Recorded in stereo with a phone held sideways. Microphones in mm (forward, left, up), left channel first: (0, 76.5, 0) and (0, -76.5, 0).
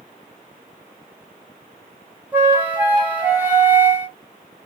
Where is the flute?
10° right (ahead or behind), 0.8 m.